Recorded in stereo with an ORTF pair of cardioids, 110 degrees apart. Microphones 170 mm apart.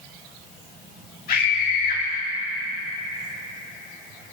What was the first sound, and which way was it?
A scream, 50° left.